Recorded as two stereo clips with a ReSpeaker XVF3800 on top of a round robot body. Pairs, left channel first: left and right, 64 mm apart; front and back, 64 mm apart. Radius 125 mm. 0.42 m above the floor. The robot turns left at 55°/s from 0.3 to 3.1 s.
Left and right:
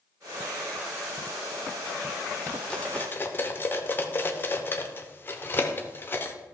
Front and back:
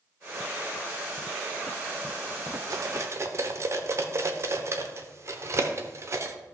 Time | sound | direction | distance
2.7 | cutlery clinking | 165° left | 0.9 m